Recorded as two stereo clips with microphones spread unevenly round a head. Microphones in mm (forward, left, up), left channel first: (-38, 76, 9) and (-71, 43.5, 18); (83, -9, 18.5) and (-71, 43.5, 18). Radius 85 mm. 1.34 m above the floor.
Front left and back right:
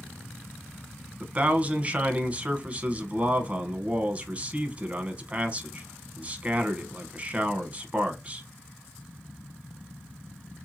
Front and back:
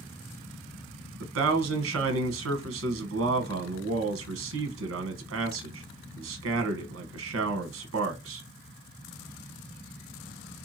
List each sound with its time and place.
1.2 s a man speaking: 160° left, 0.9 m